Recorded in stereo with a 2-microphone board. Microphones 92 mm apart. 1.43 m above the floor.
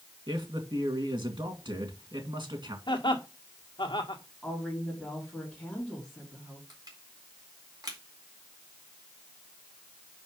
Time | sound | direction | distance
0.3 | a man speaking | 60° right (ahead or behind) | 2.5 m
2.9 | laughter | 55° left (ahead or behind) | 1.7 m
4.4 | a woman speaking | 10° left (ahead or behind) | 4 m
6.7 | crushing | 45° right (ahead or behind) | 2 m